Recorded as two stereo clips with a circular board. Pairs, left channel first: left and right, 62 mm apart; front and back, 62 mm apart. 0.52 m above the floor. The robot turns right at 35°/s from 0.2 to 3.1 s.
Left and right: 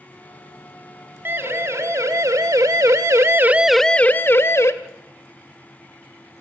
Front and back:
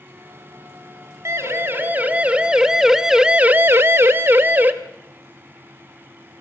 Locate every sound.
1.2 s a siren: 145° right, 3 m; by 4.7 s 125° left, 1.6 m